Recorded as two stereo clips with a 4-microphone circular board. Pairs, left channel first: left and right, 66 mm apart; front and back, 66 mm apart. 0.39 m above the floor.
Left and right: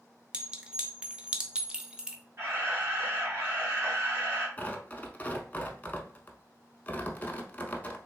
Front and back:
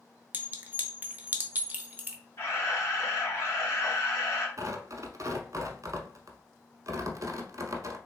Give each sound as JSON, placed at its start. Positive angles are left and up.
{"t": 0.3, "sound": "a clink", "azimuth_deg": -150, "distance_m": 0.5}
{"t": 2.4, "sound": "a camera shutter", "azimuth_deg": -35, "distance_m": 1.8}
{"t": 4.6, "sound": "tearing paper", "azimuth_deg": 155, "distance_m": 0.6}